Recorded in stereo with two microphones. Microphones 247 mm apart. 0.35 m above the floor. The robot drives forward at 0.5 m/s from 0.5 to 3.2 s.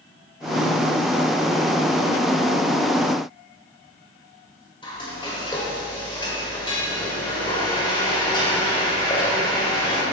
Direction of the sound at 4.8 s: 20° left (ahead or behind).